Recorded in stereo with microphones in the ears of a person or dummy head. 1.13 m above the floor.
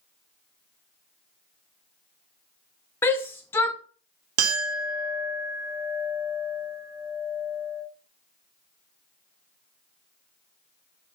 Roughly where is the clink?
Right.